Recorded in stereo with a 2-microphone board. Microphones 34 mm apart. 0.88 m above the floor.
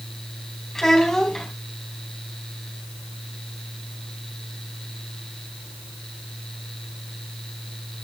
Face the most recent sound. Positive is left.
turn(degrees=15)  # may be behind; listen again after turning